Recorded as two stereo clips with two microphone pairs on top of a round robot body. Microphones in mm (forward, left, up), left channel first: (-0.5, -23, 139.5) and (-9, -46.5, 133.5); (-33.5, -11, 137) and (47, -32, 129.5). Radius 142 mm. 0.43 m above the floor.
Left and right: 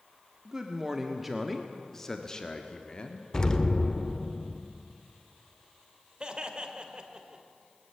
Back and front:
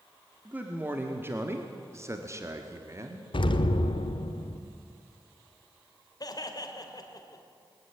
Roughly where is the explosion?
Behind left.